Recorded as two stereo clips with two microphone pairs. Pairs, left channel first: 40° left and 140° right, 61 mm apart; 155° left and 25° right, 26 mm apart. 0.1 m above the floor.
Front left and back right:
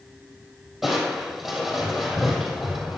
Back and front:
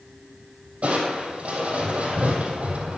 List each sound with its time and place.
0.8 s crushing: 55° right, 3.5 m